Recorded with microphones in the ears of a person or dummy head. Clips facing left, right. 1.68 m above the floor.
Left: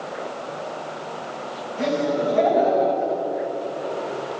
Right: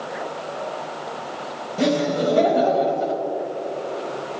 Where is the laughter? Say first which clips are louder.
Right 2 dB; 55° right (ahead or behind), 4.5 m.